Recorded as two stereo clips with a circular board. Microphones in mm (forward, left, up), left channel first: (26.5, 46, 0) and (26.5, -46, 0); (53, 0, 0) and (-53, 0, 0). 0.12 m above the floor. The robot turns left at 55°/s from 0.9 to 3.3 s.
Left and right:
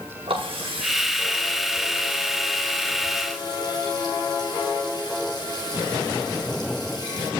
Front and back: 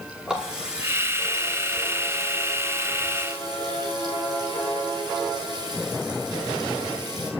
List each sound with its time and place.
0.3 s a running tap: 100° right, 5.5 m; by 7.3 s 130° left, 5.5 m